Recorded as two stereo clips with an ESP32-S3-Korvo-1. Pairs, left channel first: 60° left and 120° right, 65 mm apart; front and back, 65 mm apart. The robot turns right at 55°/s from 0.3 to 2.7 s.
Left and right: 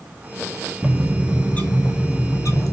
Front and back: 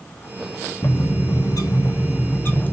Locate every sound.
0.8 s a bird: 40° right, 0.8 m; by 2.7 s 60° left, 0.8 m